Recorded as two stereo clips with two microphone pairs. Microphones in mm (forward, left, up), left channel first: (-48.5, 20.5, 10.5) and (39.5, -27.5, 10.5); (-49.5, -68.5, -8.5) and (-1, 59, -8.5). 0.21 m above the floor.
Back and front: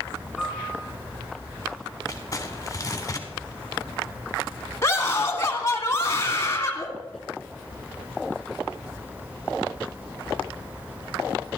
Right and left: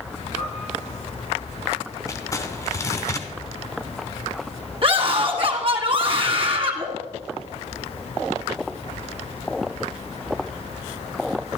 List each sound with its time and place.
0.4 s a piano: 110° right, 6.5 m
2.1 s crumpling: 165° right, 1.4 m
4.8 s a scream: 100° left, 1.8 m